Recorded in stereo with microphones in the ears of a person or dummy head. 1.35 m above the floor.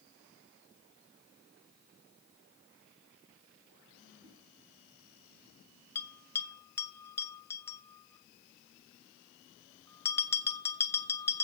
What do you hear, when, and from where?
4.2 s a whoosh: 20° right (ahead or behind), 4 m
6.0 s a bell: 20° left (ahead or behind), 0.8 m